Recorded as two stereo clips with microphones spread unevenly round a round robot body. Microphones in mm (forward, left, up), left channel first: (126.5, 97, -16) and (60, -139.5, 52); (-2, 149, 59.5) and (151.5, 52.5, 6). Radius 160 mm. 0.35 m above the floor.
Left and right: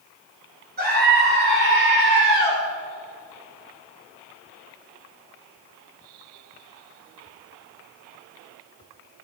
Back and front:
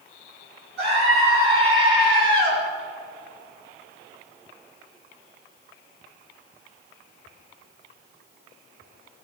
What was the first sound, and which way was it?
A scream, 55° right.